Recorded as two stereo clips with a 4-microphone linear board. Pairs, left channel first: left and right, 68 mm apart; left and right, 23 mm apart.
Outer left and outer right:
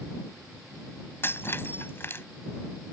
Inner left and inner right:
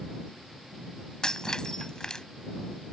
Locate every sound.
1.2 s breaking glass: 35° left (ahead or behind)